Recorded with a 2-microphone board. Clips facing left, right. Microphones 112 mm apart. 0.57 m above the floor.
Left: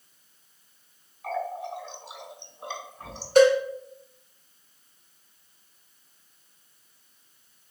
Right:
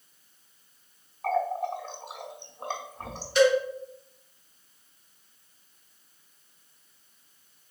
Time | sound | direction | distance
1.2 | a running tap | 50° right (ahead or behind) | 0.7 m
3.4 | a cowbell | 45° left (ahead or behind) | 1.3 m